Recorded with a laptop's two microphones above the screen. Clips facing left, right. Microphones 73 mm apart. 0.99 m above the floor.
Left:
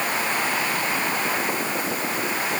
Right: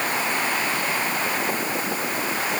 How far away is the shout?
No shout in this recording.